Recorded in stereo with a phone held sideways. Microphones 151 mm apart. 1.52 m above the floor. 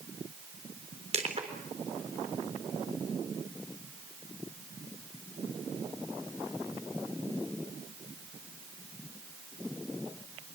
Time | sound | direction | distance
1.1 | crushing | 45° right (ahead or behind) | 3.5 m